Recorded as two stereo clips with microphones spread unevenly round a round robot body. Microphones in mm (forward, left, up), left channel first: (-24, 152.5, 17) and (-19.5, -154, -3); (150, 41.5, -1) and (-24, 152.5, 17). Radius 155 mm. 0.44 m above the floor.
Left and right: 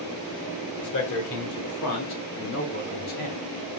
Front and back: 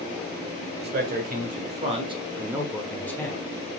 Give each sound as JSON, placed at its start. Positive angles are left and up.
{"t": 0.8, "sound": "a man speaking", "azimuth_deg": 115, "distance_m": 1.7}